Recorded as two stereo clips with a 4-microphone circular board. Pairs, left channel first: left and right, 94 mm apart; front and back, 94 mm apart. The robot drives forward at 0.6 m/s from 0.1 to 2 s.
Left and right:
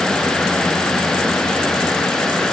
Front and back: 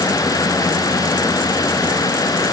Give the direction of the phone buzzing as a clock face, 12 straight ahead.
I don't hear a phone buzzing.